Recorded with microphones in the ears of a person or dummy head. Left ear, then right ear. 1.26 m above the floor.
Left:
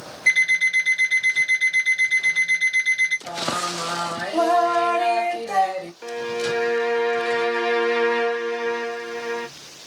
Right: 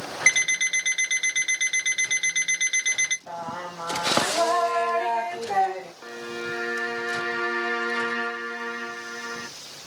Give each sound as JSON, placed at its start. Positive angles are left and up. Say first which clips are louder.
{"t": 0.3, "sound": "an alarm clock", "louder": "left 4 dB", "side_deg": -50, "distance_m": 1.3}
{"t": 3.3, "sound": "singing", "louder": "left 8 dB", "side_deg": 65, "distance_m": 0.9}
{"t": 6.0, "sound": "a violin", "louder": "left 8 dB", "side_deg": 30, "distance_m": 0.5}